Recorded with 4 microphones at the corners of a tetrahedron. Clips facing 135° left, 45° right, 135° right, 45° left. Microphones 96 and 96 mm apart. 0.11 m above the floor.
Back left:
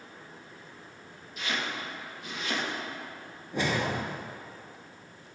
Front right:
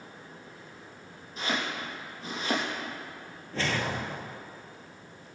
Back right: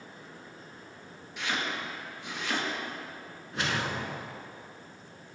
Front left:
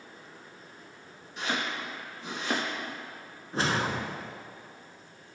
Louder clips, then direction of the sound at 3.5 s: Back left 2 dB, front left 3 dB; 70° left.